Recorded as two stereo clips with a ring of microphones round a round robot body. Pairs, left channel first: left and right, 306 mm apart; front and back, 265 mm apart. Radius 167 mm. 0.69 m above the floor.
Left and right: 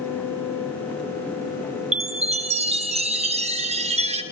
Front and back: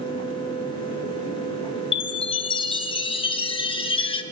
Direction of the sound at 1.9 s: 45° right.